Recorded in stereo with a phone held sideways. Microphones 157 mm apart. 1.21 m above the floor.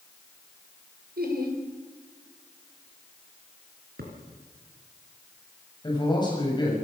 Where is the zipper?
No zipper in this recording.